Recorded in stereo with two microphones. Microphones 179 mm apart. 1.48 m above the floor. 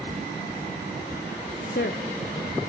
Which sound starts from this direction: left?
A woman speaking, at 1.6 s.